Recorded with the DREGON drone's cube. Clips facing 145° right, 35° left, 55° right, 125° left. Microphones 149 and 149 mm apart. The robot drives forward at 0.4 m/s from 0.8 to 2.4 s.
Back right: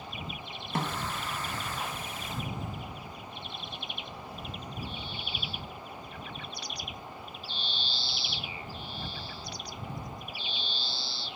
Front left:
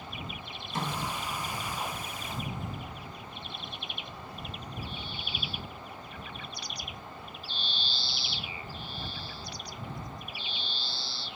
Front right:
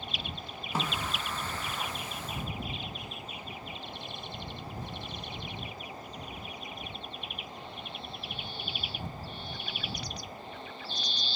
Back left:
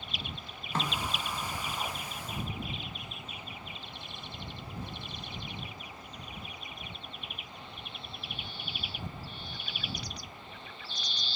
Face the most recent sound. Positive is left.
turn(degrees=-160)